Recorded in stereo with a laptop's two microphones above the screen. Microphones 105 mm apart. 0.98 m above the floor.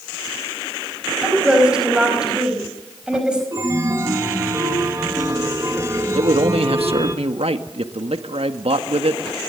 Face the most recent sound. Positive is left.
turn(degrees=-70)  # may be behind; listen again after turning